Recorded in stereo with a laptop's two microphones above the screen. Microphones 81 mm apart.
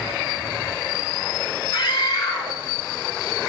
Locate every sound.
1.7 s a scream: 55° left (ahead or behind), 3.5 m